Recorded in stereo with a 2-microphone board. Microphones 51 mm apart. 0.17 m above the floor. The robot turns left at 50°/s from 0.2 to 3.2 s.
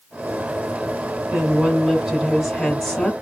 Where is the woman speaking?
120° right, 1.2 m; by 3.1 s 150° left, 1.2 m.